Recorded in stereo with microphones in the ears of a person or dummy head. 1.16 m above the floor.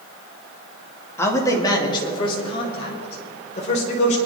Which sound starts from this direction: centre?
A man speaking, at 1.2 s.